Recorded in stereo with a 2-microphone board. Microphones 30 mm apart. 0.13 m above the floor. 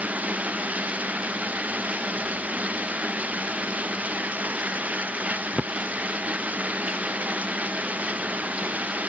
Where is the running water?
60° right (ahead or behind).